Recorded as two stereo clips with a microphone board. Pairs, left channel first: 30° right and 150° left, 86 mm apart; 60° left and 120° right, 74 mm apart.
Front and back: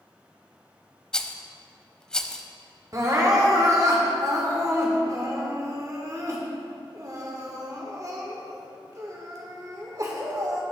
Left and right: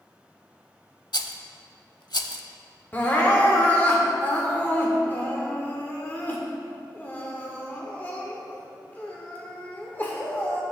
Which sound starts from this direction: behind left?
Crying, at 2.9 s.